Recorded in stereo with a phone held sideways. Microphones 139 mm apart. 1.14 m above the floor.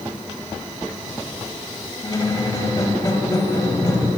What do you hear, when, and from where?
2.0 s a squeak: 30° left (ahead or behind), 1.0 m